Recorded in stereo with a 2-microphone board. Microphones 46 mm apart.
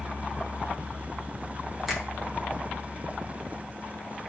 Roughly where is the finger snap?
Centre.